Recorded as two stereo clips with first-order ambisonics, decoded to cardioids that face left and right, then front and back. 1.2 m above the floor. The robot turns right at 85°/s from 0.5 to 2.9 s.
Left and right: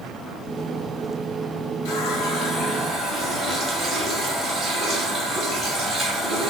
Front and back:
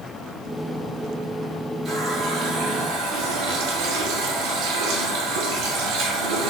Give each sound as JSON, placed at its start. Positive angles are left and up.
{"t": 1.9, "sound": "a running tap", "azimuth_deg": 95, "distance_m": 1.5}